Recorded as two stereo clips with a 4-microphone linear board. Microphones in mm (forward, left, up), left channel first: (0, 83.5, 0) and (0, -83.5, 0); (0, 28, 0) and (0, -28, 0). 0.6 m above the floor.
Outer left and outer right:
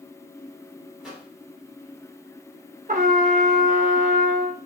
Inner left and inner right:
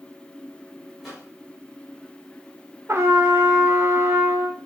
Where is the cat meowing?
No cat meowing in this recording.